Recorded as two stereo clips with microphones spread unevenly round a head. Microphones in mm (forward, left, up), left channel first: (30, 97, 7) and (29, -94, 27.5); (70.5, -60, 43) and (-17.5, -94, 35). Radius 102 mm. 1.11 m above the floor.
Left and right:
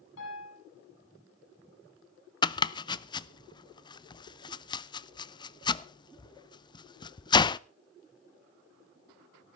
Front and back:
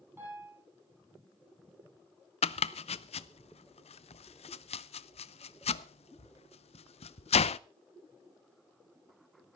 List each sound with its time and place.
0.2 s a piano: 125° left, 8.5 m
2.4 s chopping: 25° left, 0.6 m